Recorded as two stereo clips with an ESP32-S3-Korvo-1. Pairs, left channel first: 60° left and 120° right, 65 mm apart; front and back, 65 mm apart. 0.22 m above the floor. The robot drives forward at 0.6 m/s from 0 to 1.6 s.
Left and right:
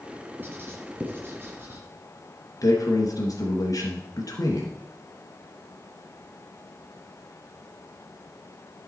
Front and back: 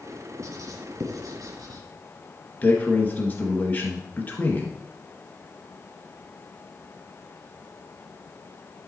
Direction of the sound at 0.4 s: 170° right.